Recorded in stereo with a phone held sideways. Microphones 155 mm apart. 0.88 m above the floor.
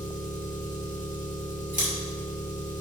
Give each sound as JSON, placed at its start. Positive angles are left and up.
{"t": 0.0, "sound": "an engine running", "side_deg": 50, "distance_m": 1.6}
{"t": 1.7, "sound": "scissors", "side_deg": -55, "distance_m": 3.5}